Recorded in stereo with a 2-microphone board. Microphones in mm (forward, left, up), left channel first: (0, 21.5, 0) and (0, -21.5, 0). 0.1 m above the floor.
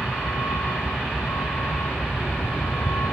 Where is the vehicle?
75° left (ahead or behind); by 3.1 s 70° left (ahead or behind).